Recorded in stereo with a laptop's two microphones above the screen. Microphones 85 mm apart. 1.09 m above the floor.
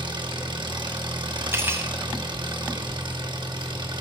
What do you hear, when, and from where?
0.0 s an engine running: 75° right (ahead or behind), 1.0 m
1.5 s cutlery clinking: 30° right (ahead or behind), 0.7 m